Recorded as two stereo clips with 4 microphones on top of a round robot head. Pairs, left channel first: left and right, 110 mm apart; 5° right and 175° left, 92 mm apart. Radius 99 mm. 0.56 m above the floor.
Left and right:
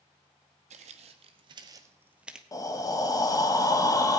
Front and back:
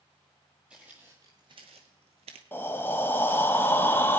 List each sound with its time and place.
0.7 s footsteps: 100° right, 1.0 m; by 2.4 s 175° right, 0.8 m
2.5 s breathing: 50° left, 1.2 m